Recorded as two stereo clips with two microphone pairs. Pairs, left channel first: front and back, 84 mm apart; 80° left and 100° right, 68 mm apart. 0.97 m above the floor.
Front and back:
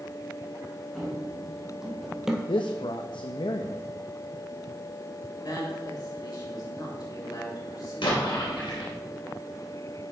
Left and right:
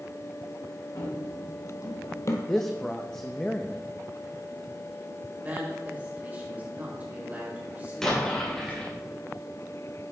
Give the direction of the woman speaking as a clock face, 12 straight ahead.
1 o'clock.